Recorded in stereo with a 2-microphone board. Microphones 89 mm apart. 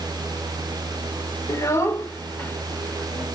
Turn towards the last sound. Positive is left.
turn(degrees=15)  # may be behind; listen again after turning